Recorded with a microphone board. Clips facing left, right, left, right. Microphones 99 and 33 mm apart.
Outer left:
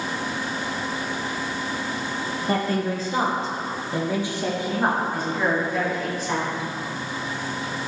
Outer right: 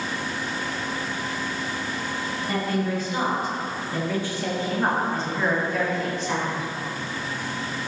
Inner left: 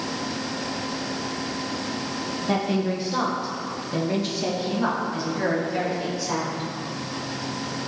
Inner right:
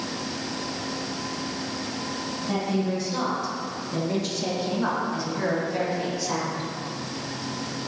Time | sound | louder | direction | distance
2.5 | a woman speaking | outer left 2 dB, inner left 2 dB | 45° left (ahead or behind) | 1.4 m